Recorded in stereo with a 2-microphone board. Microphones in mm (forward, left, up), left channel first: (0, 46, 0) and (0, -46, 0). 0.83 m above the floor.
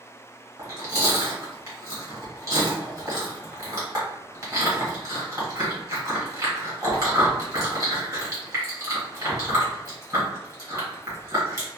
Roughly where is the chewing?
Right.